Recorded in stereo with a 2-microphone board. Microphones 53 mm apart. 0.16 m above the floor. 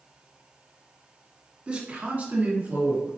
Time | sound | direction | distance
1.7 | a man speaking | 25° right (ahead or behind) | 1.2 m